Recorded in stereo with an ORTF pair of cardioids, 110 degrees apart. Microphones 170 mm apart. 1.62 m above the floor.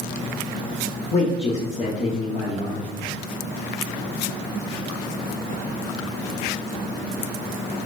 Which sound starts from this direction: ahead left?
A man speaking, at 1.1 s.